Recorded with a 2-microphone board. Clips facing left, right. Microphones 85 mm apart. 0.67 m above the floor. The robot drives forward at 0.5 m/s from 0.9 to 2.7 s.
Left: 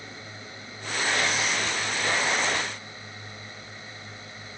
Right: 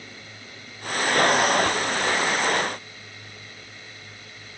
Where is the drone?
25° left (ahead or behind).